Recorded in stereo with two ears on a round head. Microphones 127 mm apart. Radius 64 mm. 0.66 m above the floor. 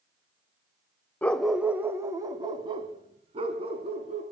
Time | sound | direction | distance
1.2 | a dog barking | 10° left (ahead or behind) | 0.8 m